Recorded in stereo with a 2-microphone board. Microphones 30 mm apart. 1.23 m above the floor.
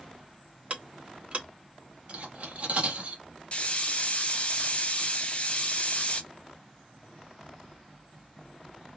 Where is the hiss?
45° left (ahead or behind), 0.6 m.